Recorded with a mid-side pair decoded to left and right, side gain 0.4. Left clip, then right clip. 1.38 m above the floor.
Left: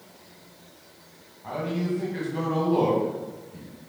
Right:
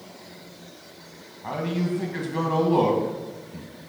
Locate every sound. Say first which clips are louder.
1.4 s a man speaking: right 1 dB; 55° right, 1.5 m